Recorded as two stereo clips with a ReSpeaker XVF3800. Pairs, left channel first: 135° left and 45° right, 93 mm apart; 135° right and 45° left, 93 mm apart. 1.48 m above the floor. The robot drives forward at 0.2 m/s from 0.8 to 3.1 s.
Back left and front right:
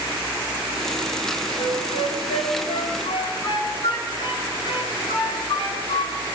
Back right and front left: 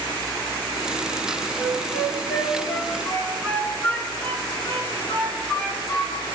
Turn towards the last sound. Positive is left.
turn(degrees=150)